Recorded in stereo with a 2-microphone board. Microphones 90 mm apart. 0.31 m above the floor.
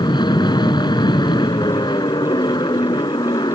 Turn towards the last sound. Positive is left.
turn(degrees=55)  # may be behind; listen again after turning